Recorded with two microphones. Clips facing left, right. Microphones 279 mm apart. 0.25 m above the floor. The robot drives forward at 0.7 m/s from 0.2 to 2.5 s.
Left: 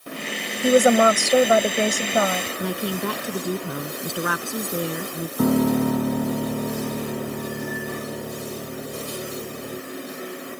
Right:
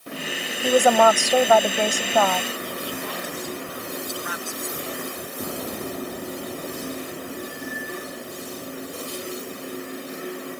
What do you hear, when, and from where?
0.6 s a woman speaking: 20° left (ahead or behind)
2.6 s a woman speaking: 65° left (ahead or behind)
5.4 s a piano: 70° left (ahead or behind)